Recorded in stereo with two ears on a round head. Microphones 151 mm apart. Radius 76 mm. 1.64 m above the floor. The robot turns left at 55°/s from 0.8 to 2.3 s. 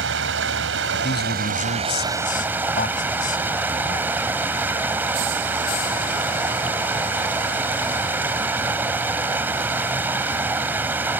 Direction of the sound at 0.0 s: 85° right.